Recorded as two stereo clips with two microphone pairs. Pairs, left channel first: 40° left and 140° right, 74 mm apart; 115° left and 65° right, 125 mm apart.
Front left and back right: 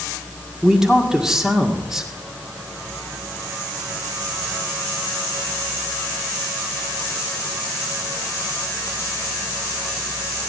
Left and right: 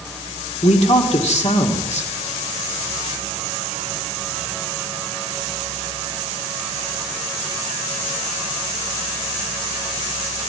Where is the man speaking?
140° left, 2 m.